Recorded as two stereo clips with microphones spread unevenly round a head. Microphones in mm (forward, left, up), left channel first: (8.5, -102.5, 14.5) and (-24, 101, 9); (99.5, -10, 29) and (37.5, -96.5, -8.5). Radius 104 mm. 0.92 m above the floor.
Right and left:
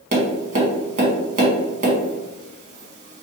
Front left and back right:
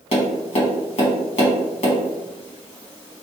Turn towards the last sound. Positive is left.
turn(degrees=65)